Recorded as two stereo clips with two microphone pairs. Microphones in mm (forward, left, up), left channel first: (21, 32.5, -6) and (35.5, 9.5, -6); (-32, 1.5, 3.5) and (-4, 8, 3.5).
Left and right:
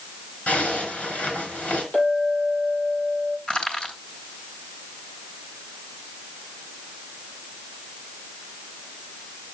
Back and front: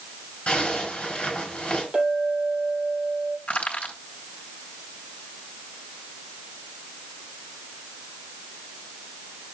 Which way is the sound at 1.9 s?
75° left.